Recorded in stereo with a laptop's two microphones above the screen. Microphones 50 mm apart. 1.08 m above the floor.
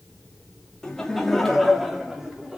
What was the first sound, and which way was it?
Laughter, 15° left (ahead or behind).